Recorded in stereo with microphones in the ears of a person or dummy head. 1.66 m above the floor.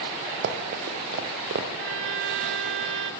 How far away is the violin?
About 2.5 m.